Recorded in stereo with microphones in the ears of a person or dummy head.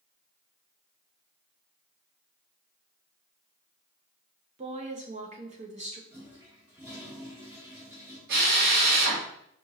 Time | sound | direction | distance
4.6 | a woman speaking | 35° right (ahead or behind) | 0.7 m
6.1 | a toilet flushing | 10° right (ahead or behind) | 1.0 m
8.3 | a drill | 60° right (ahead or behind) | 1.3 m